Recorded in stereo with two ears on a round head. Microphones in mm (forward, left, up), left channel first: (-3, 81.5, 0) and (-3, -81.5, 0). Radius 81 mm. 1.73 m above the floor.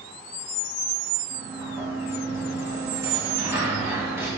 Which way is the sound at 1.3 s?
15° right (ahead or behind).